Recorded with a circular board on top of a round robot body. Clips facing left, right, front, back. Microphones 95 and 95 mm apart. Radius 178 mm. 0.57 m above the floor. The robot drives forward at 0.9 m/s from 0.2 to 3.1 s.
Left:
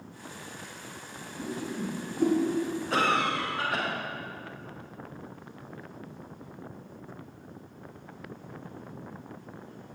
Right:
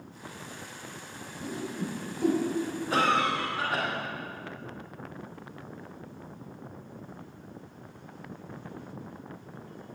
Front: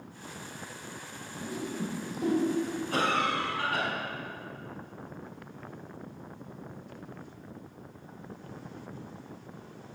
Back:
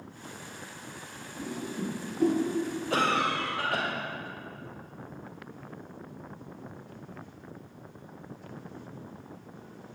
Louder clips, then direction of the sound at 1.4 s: Left 1 dB, even; 140° left.